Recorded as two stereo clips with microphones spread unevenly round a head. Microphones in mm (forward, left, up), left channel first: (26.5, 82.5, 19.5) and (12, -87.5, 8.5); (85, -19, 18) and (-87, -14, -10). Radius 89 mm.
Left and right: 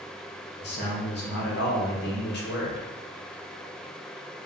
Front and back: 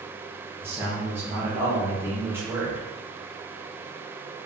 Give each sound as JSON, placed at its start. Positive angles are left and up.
{"t": 0.6, "sound": "a man speaking", "azimuth_deg": 105, "distance_m": 0.8}